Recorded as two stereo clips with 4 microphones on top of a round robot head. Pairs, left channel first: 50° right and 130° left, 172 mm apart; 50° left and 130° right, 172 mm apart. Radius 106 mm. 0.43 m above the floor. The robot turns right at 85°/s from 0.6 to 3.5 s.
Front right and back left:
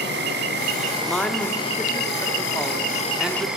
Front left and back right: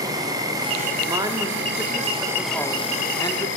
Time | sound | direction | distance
0.0 | an insect | 160° left | 1.2 m
1.1 | a woman speaking | 135° right | 1.0 m